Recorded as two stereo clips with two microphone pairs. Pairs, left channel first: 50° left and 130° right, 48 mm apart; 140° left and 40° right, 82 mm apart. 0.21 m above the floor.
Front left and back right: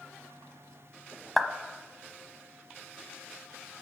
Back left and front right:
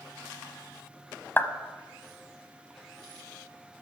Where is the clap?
135° left, 0.8 m.